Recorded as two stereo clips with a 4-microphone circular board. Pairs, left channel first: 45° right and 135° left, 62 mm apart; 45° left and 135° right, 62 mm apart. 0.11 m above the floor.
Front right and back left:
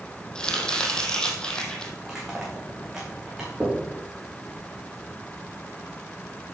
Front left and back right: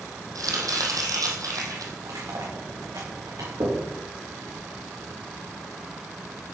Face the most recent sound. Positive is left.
turn(degrees=-155)